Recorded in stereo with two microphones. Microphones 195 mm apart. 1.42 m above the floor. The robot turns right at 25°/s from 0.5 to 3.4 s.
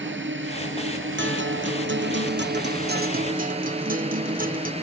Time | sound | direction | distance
0.0 | a drone | 105° right | ?
1.2 | a guitar | 105° right | ?